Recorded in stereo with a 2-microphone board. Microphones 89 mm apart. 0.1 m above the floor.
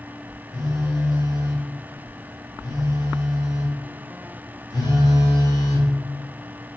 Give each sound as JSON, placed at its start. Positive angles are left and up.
{"t": 0.5, "sound": "a phone buzzing", "side_deg": 50, "distance_m": 0.6}